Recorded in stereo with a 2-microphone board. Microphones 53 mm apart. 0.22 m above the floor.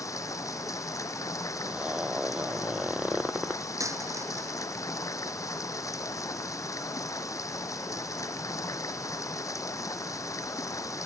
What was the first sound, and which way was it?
Running water, 85° left.